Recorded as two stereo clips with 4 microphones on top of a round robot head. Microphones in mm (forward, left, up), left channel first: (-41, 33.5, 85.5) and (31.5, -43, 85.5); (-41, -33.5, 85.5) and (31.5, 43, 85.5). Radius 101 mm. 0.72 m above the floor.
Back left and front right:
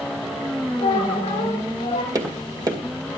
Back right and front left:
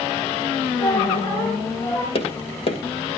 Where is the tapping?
100° right, 2.5 m.